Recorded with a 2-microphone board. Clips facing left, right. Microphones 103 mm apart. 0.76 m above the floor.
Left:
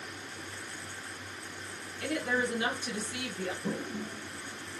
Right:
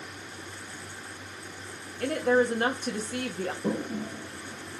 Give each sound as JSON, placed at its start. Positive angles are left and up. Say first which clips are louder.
{"t": 2.0, "sound": "a woman speaking", "louder": "right 8 dB", "side_deg": -45, "distance_m": 0.9}
{"t": 3.6, "sound": "a toilet flushing", "louder": "right 5 dB", "side_deg": -55, "distance_m": 0.5}